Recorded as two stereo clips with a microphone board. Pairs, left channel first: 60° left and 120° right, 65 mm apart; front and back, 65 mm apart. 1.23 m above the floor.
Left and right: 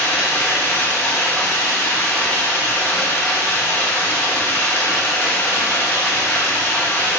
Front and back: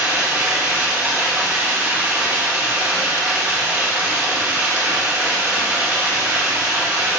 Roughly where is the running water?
Behind left.